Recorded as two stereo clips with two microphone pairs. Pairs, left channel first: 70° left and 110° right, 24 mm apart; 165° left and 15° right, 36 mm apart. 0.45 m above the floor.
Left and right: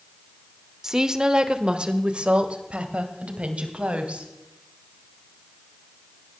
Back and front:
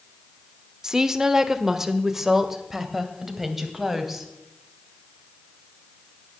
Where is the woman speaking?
70° right, 1.0 m; by 4.3 s 95° right, 2.5 m.